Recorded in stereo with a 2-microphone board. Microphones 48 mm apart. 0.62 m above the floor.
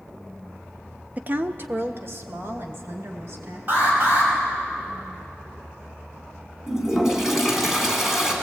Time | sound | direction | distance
1.2 | a woman speaking | 30° right (ahead or behind) | 0.7 m
3.7 | an alarm | 40° right (ahead or behind) | 5.5 m
6.7 | a toilet flushing | 10° right (ahead or behind) | 3.5 m